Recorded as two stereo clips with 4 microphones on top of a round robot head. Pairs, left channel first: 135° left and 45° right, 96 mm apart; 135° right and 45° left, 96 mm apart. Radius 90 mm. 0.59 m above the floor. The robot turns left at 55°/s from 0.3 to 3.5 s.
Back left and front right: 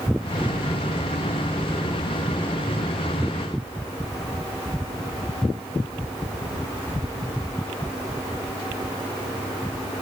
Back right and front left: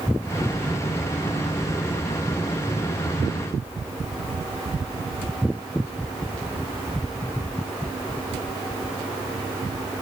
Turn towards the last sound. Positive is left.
No sound to turn to.